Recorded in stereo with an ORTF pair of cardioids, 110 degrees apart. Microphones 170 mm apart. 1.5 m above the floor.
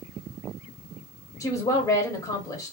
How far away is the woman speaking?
About 1.0 m.